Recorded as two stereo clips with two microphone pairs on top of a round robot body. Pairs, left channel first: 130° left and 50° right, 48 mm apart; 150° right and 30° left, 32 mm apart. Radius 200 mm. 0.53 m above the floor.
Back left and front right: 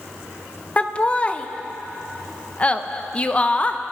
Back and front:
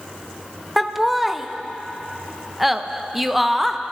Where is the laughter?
125° left, 0.9 m.